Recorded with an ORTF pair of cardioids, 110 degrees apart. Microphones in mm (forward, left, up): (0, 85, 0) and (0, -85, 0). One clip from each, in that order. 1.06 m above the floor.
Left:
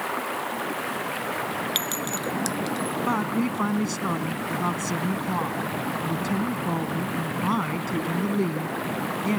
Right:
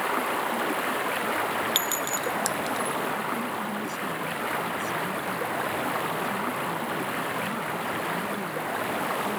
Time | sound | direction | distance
0.0 | running water | 15° right | ?
1.8 | a clink | 5° right | ?
3.1 | a woman speaking | 65° left | ?